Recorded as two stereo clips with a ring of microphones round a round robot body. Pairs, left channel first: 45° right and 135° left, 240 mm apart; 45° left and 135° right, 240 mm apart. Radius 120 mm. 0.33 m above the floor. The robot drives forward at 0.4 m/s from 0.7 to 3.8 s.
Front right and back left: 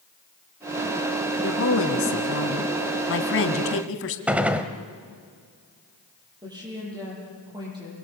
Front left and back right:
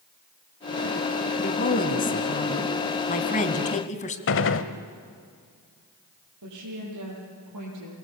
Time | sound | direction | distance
1.4 | a woman speaking | 10° right | 3 m
4.3 | a gunshot | 50° left | 1.2 m
6.4 | a woman speaking | 150° right | 10 m